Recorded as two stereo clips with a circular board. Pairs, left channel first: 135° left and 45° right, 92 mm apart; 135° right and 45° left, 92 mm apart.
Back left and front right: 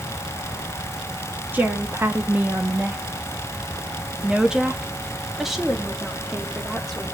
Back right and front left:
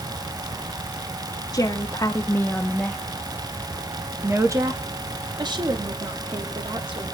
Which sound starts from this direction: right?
A woman speaking, at 1.5 s.